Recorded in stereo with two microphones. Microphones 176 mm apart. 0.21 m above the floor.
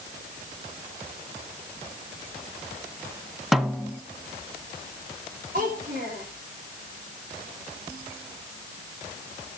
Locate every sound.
3.5 s a snare drum: centre (ahead or behind), 0.8 m
5.5 s a child speaking: 50° right (ahead or behind), 6 m